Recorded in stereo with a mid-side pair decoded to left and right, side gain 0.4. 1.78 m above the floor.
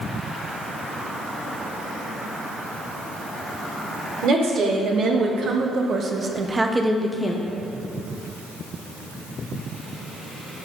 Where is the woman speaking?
70° right, 1.5 m; by 7.4 s 55° left, 0.5 m.